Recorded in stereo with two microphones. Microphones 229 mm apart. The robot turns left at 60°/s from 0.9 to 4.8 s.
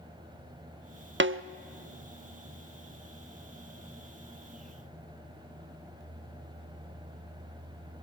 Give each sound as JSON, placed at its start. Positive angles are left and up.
{"t": 1.2, "sound": "a snare drum", "side_deg": -55, "distance_m": 0.5}